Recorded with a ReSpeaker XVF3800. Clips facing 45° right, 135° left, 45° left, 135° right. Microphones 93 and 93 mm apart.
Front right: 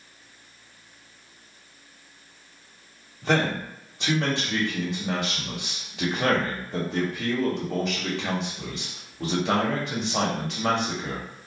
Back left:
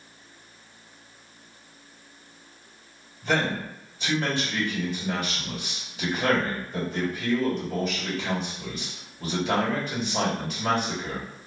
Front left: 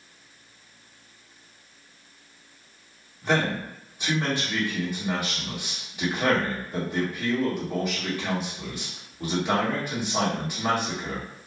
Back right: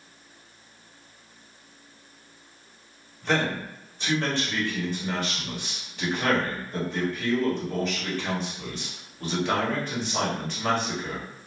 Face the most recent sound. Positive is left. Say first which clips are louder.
# front right 2 dB, front left 1 dB
turn(degrees=-35)